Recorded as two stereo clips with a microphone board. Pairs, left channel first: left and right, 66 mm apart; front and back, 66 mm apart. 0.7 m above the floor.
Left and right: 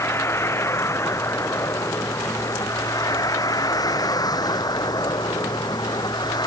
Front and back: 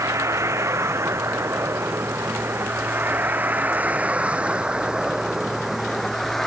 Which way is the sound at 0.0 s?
140° left.